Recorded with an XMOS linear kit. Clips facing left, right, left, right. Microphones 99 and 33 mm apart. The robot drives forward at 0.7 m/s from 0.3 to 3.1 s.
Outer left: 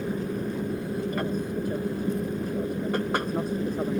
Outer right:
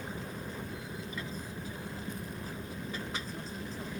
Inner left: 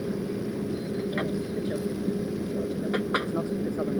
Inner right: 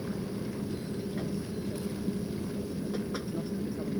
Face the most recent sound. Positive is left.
turn(degrees=65)  # may be behind; listen again after turning